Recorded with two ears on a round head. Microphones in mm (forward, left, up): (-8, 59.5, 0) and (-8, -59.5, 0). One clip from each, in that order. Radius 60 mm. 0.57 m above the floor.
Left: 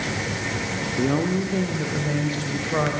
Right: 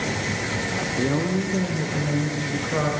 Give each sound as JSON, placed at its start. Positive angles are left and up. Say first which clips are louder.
{"t": 1.0, "sound": "a woman speaking", "louder": "left 3 dB", "side_deg": 55, "distance_m": 1.2}